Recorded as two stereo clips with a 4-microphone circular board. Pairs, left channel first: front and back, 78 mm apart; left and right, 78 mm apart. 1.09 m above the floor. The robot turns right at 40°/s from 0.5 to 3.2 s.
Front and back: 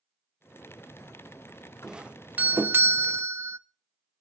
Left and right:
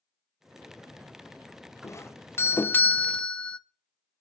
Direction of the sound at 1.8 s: 105° left.